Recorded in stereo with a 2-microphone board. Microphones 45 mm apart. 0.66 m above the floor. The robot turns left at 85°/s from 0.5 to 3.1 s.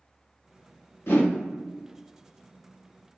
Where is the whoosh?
70° left (ahead or behind), 0.8 m; by 1.3 s 75° left (ahead or behind), 0.8 m.